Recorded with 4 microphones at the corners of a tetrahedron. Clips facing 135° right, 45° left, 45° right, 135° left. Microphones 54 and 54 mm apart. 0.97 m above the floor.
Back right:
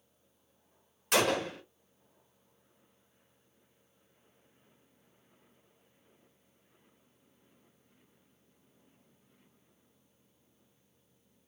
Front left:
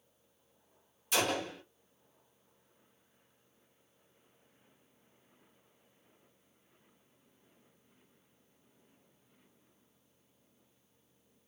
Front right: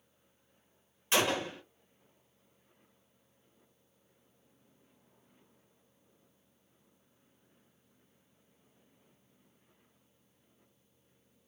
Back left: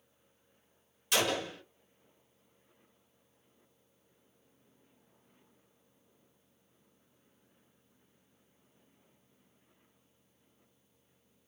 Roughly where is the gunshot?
Right.